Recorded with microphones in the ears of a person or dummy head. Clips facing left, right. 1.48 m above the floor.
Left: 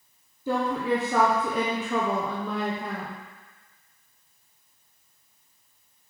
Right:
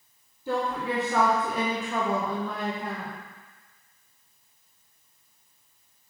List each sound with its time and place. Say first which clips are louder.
0.5 s a woman speaking: left 3 dB; 70° left (ahead or behind), 1.0 m